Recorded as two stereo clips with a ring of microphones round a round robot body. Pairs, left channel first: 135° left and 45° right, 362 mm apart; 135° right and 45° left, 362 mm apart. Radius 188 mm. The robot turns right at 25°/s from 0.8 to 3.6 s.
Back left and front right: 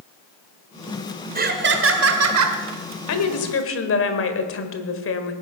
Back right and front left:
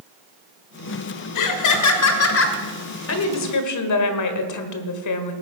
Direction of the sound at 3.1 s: 175° left.